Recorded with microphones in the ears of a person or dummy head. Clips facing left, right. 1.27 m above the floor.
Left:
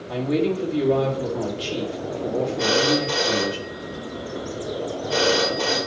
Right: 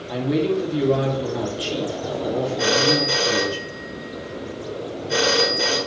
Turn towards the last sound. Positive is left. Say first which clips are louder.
# even
turn(degrees=-20)  # may be behind; listen again after turning